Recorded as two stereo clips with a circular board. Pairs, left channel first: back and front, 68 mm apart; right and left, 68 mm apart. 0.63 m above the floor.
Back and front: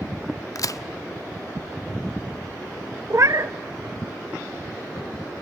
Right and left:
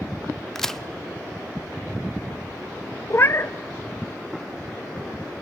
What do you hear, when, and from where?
0.6 s a crack: 175° right, 0.7 m
3.1 s a cat meowing: 40° right, 0.6 m